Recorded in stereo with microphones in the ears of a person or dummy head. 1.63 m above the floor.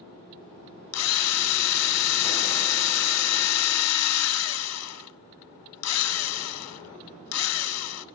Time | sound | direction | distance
0.9 | a drill | 80° left | 1.5 m